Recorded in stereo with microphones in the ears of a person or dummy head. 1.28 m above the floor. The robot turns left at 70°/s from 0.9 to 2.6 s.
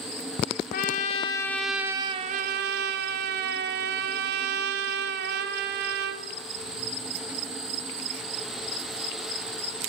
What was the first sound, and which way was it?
A trumpet, 55° left.